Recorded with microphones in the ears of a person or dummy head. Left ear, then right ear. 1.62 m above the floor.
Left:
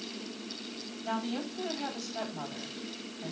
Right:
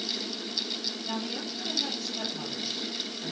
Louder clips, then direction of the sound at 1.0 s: Right 2 dB; 50° left (ahead or behind).